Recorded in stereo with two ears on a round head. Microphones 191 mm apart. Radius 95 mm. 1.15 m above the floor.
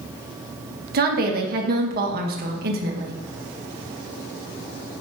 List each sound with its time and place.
0.9 s a woman speaking: 45° right (ahead or behind), 1.5 m